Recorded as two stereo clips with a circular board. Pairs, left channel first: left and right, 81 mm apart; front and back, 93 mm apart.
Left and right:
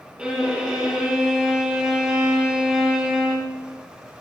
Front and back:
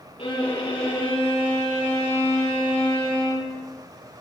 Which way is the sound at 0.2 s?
10° right.